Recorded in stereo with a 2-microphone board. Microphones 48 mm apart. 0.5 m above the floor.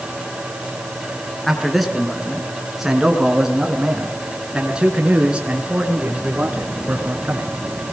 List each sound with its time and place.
1.4 s a man speaking: 5° left (ahead or behind), 5 m; by 7.5 s 30° right (ahead or behind), 5.5 m